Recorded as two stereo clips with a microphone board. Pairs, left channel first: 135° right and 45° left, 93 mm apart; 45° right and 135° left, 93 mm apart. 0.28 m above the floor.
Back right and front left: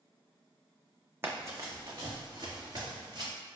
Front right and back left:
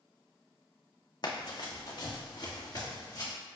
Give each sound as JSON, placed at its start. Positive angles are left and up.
{"t": 1.2, "sound": "running footsteps", "azimuth_deg": -15, "distance_m": 0.6}